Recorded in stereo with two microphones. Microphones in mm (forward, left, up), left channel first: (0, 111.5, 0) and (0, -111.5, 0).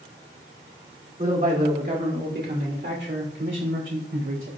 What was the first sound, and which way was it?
A man speaking, 35° right (ahead or behind).